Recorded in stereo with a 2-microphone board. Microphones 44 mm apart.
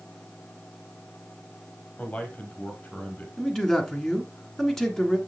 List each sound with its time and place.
2.0 s a man speaking: 30° left (ahead or behind), 3 m
3.4 s a man speaking: 5° left (ahead or behind), 1.7 m